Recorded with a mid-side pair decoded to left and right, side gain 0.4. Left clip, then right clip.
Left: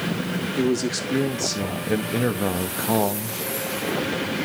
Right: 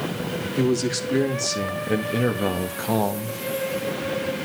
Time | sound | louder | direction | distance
0.6 | a man speaking | right 1 dB | straight ahead | 3 m